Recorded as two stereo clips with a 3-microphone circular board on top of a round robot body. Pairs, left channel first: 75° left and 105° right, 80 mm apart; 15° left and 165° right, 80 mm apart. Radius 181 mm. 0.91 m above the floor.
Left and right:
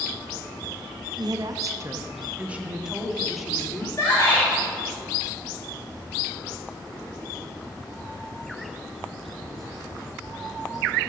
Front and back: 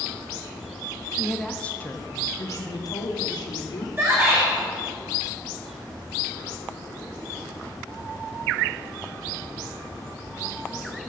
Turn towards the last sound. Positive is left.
turn(degrees=130)